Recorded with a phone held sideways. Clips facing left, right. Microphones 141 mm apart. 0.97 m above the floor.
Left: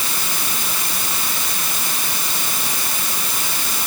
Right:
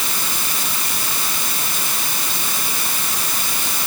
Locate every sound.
Only background noise.